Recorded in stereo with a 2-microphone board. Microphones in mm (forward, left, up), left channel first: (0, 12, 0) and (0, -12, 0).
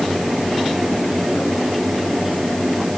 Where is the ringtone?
No ringtone in this recording.